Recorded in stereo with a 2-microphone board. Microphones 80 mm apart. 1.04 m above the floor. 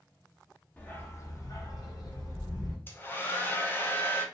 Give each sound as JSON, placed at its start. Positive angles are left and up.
{"t": 0.8, "sound": "a dog barking", "side_deg": 20, "distance_m": 0.7}
{"t": 2.9, "sound": "a hair dryer", "side_deg": 25, "distance_m": 0.6}